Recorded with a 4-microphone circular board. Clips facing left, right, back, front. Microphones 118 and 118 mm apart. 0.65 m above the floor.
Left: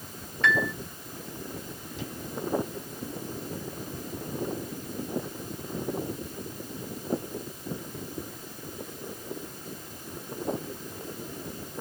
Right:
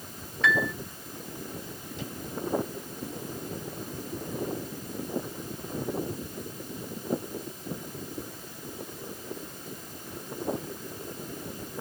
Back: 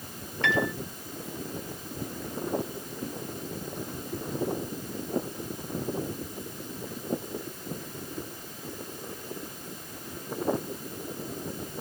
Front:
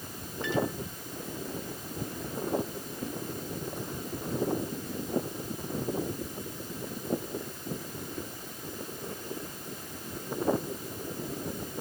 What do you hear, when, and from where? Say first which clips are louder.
0.4 s a piano: even, back 2 dB; straight behind